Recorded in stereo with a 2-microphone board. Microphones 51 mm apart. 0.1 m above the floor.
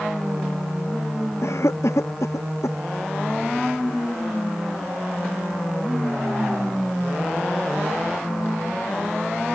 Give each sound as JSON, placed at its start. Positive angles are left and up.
{"t": 1.4, "sound": "a cough", "side_deg": 70}